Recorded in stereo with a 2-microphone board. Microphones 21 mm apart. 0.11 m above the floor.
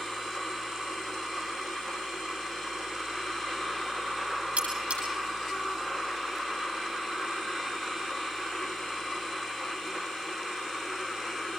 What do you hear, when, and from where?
4.6 s cutlery clinking: 80° right, 9.5 m